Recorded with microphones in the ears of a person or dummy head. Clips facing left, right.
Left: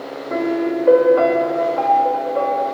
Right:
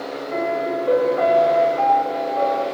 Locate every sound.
0.3 s a piano: 60° left (ahead or behind), 3.5 m